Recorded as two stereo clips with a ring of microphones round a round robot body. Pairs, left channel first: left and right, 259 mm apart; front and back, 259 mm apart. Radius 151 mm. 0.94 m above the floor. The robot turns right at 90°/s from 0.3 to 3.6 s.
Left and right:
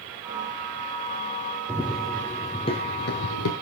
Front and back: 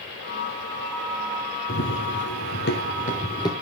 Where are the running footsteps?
10° right, 1.2 m; by 3.5 s 75° left, 1.4 m.